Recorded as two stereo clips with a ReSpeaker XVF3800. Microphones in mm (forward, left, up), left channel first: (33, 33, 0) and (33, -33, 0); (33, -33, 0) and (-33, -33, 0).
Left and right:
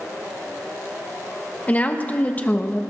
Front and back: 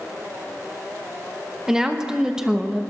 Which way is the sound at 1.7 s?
115° left.